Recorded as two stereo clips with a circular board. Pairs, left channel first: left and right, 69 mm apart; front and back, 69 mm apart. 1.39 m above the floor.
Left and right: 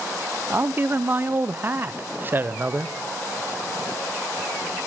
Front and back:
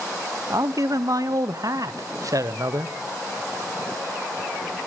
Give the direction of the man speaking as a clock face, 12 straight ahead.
5 o'clock.